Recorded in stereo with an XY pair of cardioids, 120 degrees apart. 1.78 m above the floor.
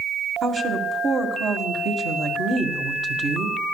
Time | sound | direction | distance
0.4 | a woman speaking | 45° right | 1.8 m